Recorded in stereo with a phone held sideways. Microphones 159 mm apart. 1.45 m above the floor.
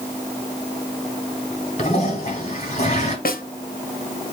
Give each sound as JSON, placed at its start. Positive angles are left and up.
{"t": 1.8, "sound": "a toilet flushing", "side_deg": 45, "distance_m": 2.0}
{"t": 3.2, "sound": "a snare drum", "side_deg": 65, "distance_m": 0.6}